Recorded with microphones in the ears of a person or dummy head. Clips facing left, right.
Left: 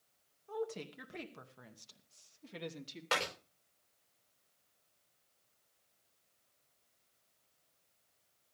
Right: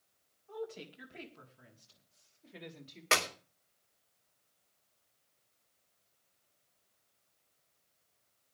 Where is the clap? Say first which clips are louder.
Right 3 dB; 35° right (ahead or behind), 4 m.